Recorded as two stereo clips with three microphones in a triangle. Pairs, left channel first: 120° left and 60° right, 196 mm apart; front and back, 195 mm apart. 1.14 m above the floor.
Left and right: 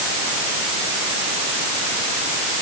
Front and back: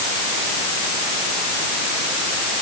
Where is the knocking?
I don't hear knocking.